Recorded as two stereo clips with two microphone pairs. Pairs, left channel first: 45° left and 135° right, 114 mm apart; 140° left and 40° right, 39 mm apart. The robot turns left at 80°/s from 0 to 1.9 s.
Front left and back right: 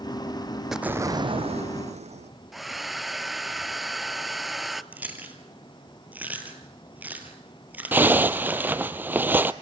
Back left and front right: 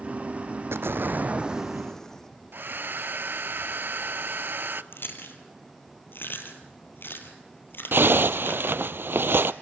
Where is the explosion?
45° right, 1.1 m; by 2.3 s 140° right, 1.1 m.